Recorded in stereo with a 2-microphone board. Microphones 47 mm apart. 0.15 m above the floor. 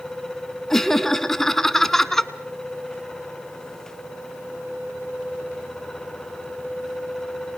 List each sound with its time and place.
0.7 s laughter: 5° left (ahead or behind), 1.2 m